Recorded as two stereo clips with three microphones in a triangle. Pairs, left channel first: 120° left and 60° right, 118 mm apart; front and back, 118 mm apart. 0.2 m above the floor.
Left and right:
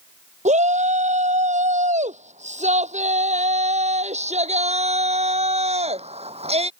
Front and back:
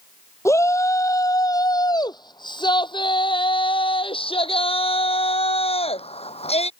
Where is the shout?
65° right; by 6.7 s 30° right.